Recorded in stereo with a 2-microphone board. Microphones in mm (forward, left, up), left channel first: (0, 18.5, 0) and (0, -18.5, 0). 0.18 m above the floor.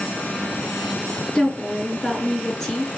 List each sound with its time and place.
1.4 s a woman speaking: 10° left (ahead or behind), 3 m